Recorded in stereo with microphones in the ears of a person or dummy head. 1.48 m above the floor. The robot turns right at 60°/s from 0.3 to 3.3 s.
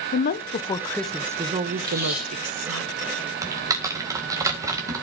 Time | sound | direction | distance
0.1 | a woman speaking | 135° left | 0.8 m
1.8 | tape being pulled | 25° right (ahead or behind) | 4 m
3.4 | typing on a keyboard | 20° right (ahead or behind) | 1.9 m